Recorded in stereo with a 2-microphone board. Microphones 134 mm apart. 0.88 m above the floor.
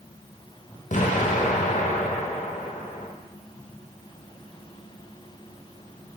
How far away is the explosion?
About 0.5 m.